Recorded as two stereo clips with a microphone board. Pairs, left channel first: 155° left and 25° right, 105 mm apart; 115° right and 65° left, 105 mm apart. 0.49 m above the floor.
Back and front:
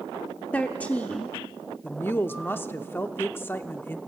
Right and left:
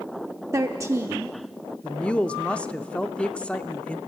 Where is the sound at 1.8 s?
175° right, 0.7 m.